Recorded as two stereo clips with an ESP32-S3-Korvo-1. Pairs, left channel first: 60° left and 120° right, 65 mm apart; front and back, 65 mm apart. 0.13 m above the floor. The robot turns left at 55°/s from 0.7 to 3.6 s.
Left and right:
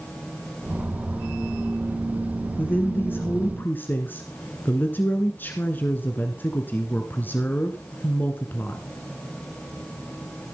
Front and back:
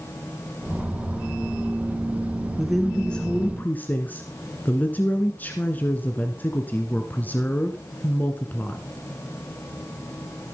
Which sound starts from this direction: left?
A woman speaking, at 2.6 s.